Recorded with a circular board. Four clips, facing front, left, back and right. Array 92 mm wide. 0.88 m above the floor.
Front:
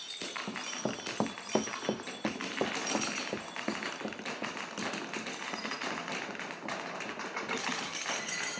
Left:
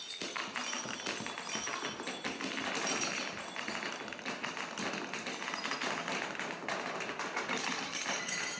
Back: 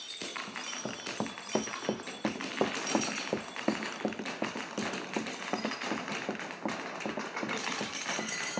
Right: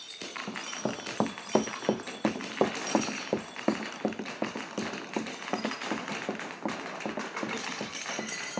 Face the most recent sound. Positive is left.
turn(degrees=-125)